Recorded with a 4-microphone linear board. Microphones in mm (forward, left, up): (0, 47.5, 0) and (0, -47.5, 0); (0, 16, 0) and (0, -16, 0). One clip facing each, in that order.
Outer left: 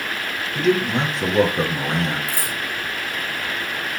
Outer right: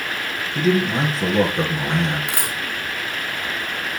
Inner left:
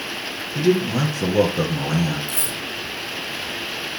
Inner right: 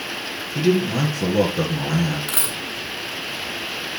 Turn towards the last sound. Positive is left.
turn(degrees=-75)  # may be behind; listen again after turning